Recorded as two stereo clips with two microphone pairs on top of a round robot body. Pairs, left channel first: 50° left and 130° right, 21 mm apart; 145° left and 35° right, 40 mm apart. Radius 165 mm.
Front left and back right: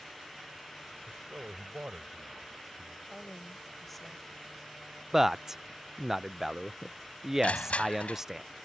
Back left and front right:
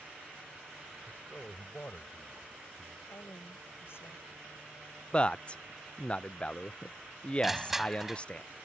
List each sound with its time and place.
1.1 s a man speaking: 155° right; by 3.0 s 170° right
3.1 s a woman speaking: 130° left
5.1 s a man speaking: 165° left
7.4 s crushing: 45° left